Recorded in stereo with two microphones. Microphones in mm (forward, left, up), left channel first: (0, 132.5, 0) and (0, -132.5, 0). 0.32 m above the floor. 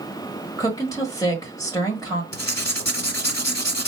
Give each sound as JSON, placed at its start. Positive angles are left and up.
{"t": 0.6, "sound": "a woman speaking", "side_deg": 15, "distance_m": 1.1}
{"t": 2.3, "sound": "writing", "side_deg": 70, "distance_m": 0.7}